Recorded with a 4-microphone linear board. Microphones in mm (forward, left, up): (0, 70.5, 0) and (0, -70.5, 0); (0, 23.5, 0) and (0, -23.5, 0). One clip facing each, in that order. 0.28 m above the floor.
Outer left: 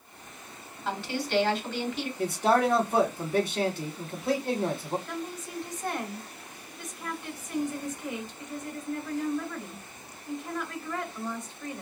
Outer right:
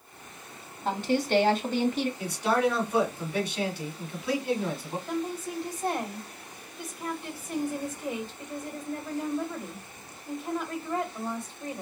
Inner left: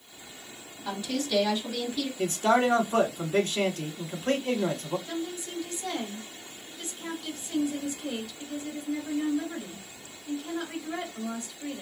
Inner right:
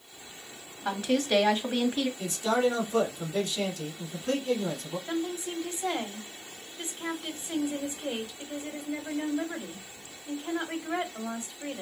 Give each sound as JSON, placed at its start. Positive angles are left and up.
{"t": 0.8, "sound": "a woman speaking", "side_deg": -45, "distance_m": 1.4}
{"t": 2.2, "sound": "a man speaking", "side_deg": 50, "distance_m": 2.0}
{"t": 5.1, "sound": "a woman speaking", "side_deg": -30, "distance_m": 1.6}